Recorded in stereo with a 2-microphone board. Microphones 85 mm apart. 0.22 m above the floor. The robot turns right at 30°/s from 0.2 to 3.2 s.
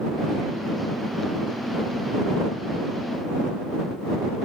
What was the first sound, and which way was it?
Only background noise.